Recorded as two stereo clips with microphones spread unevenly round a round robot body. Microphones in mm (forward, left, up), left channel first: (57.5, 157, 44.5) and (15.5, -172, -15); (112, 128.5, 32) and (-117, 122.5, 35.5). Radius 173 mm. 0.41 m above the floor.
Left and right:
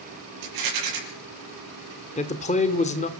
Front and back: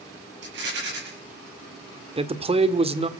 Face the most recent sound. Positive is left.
turn(degrees=150)